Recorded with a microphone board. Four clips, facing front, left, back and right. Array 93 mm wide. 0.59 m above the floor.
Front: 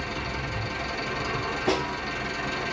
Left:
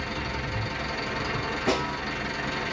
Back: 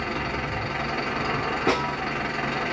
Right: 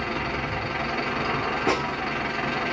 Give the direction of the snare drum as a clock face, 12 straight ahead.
5 o'clock.